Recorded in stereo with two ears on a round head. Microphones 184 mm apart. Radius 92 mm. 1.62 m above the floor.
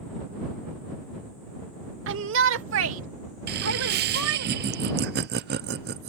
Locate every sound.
2.1 s a shout: 65° right (ahead or behind); by 4.5 s 70° right (ahead or behind)
3.5 s laughter: 50° right (ahead or behind)